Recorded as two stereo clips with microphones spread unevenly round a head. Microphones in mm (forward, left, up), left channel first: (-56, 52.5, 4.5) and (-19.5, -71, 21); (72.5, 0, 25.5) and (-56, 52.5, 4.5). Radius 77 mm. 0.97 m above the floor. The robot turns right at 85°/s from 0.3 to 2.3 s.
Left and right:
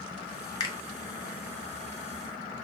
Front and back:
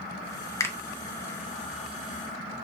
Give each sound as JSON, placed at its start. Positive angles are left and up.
{"t": 0.6, "sound": "a finger snap", "azimuth_deg": 50, "distance_m": 0.7}